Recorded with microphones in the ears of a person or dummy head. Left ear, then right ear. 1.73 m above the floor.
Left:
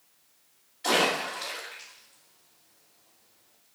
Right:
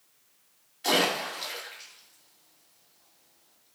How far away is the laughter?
I don't hear laughter.